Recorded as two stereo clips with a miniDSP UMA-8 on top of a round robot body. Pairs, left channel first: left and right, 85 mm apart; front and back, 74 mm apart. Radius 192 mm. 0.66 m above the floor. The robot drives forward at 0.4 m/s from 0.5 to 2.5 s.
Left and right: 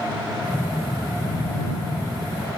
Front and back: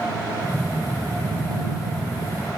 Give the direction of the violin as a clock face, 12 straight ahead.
No violin in this recording.